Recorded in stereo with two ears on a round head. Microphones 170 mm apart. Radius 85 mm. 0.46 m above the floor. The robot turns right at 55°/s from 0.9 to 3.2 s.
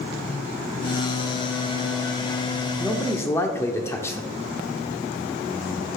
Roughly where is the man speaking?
Centre.